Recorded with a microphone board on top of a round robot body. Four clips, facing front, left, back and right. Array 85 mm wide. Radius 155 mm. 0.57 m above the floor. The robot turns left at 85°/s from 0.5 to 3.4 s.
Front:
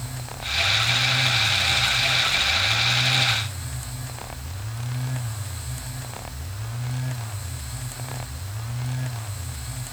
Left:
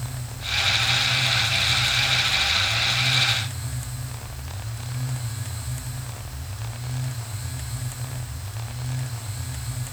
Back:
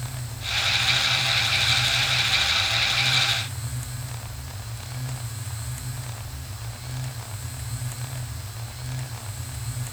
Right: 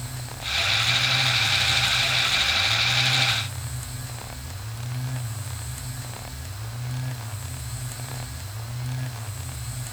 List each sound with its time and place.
Only background noise.